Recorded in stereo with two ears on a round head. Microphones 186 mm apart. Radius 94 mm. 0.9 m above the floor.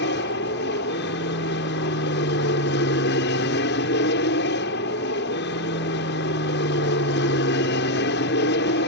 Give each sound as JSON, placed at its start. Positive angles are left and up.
{"t": 0.0, "sound": "an aircraft", "side_deg": 55}